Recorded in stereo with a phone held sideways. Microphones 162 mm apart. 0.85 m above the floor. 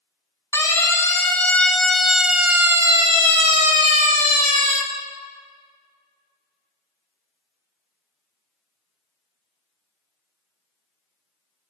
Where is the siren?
20° left (ahead or behind), 3 m; by 4.8 s 55° right (ahead or behind), 2.5 m.